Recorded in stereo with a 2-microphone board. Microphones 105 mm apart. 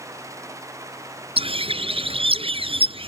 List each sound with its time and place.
1.4 s a bird: 70° right (ahead or behind)